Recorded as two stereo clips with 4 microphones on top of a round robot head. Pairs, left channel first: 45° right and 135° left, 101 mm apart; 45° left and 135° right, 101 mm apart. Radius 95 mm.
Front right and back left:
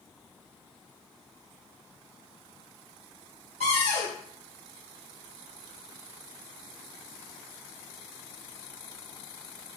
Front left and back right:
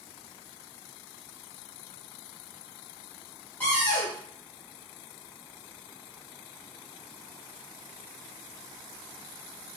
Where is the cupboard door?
120° left, 1.1 m.